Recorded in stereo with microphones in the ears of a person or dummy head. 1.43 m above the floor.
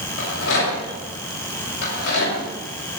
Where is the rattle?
70° left (ahead or behind), 7 m.